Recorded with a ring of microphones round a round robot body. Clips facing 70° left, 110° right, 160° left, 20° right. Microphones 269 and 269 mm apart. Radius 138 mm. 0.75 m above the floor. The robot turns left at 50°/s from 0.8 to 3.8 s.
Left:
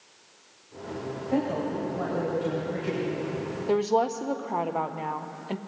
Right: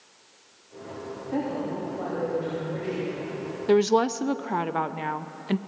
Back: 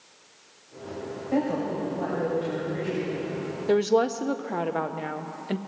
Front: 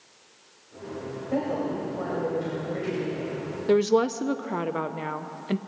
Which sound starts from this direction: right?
A woman speaking, at 3.7 s.